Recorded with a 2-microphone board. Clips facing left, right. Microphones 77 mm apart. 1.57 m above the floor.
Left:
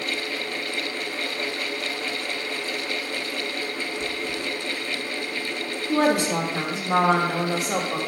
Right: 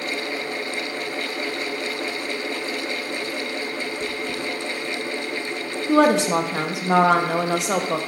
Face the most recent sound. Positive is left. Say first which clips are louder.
# right 4 dB
turn(degrees=-75)  # may be behind; listen again after turning